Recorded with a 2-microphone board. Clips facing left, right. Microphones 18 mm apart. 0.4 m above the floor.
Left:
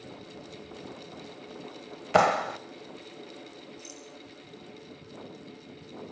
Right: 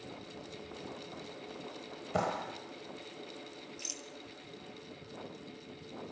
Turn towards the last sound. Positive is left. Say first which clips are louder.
# right 3 dB
turn(degrees=-35)  # may be behind; listen again after turning